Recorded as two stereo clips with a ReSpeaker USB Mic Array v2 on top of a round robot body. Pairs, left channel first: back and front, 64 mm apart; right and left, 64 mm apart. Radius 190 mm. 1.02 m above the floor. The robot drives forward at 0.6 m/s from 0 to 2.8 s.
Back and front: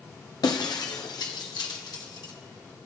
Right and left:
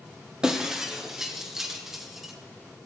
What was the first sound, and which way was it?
Breaking glass, 170° left.